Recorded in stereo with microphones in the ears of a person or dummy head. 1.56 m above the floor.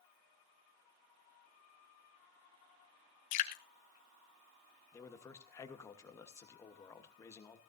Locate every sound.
3.3 s dripping: 40° left (ahead or behind), 1.2 m
4.9 s a man speaking: 10° left (ahead or behind), 1.2 m